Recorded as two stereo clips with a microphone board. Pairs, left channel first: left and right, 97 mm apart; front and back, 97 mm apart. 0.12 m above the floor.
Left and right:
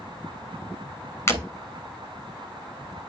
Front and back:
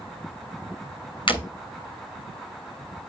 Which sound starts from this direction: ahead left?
Breaking glass, at 1.3 s.